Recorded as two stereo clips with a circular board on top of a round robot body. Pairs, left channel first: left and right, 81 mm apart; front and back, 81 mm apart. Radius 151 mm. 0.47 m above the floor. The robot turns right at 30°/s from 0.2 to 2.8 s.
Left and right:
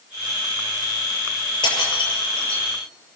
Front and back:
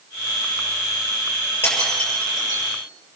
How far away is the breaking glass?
About 7 m.